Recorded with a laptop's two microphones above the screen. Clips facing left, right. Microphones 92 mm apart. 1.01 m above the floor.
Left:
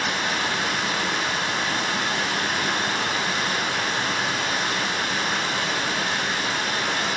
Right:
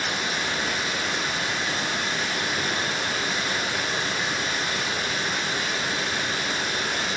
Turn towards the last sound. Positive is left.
turn(degrees=90)